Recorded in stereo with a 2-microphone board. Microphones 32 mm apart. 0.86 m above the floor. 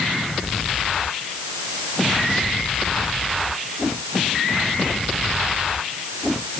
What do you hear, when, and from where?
Only background noise.